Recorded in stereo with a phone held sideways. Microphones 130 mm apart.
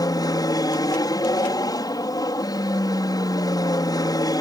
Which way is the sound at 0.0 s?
25° left (ahead or behind).